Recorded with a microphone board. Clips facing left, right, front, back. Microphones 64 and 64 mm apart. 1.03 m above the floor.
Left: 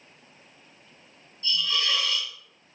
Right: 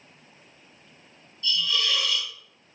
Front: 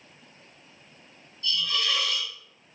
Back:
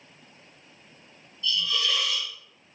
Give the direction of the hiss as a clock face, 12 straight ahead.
11 o'clock.